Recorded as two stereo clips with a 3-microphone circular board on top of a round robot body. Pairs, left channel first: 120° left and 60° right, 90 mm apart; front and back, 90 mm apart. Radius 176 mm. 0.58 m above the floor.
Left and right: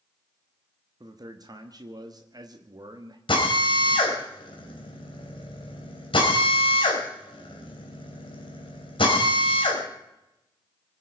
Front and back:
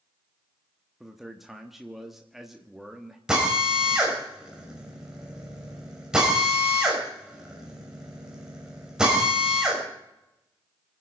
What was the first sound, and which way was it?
A man speaking, 95° right.